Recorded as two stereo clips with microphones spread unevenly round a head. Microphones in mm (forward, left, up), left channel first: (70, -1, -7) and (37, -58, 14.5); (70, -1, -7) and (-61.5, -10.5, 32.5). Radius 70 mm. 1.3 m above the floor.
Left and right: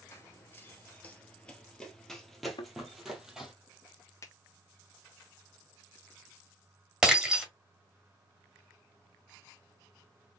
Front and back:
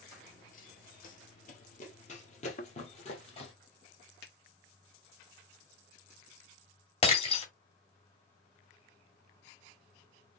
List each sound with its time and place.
0.1 s running footsteps: 10° left, 1.4 m; by 3.5 s 50° right, 2.5 m
2.6 s a thud: 45° left, 0.9 m
4.2 s a finger snap: 15° left, 1.7 m
7.0 s breaking glass: 50° right, 1.8 m